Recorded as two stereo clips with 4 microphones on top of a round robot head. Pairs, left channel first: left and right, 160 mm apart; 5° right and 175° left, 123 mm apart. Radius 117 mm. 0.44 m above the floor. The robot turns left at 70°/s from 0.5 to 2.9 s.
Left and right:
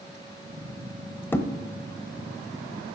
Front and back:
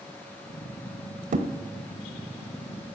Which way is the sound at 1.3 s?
165° left.